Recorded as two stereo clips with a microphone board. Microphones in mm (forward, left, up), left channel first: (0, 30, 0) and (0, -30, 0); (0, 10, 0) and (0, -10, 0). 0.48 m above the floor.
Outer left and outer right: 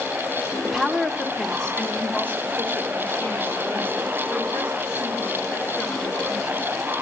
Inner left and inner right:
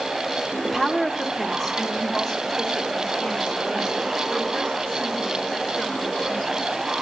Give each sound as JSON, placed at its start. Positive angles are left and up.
{"t": 0.6, "sound": "a woman speaking", "side_deg": -15, "distance_m": 0.9}